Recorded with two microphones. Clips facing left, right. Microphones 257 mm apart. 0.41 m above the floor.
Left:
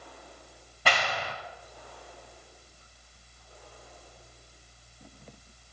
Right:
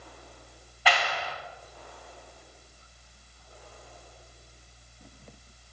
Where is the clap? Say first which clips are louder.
Right 1 dB; 50° left (ahead or behind), 2 m.